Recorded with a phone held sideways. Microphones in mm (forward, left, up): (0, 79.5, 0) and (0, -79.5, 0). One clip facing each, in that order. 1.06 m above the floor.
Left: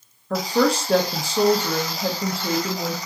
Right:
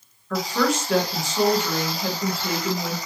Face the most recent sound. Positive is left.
turn(degrees=35)  # may be behind; listen again after turning